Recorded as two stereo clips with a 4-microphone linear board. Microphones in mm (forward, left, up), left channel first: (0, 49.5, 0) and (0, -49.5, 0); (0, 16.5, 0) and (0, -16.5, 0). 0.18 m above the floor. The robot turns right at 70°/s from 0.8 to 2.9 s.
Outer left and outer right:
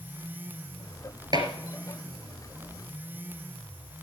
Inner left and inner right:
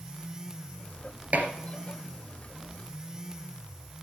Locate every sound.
1.3 s dishes clattering: 45° right (ahead or behind), 2.5 m; by 1.5 s 55° right (ahead or behind), 2.5 m